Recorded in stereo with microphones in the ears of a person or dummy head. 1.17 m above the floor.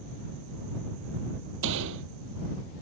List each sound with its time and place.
1.6 s a gunshot: 65° right (ahead or behind)